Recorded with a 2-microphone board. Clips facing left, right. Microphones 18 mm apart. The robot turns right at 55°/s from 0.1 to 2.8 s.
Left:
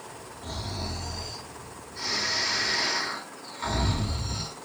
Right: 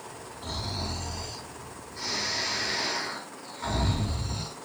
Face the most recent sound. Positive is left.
turn(degrees=50)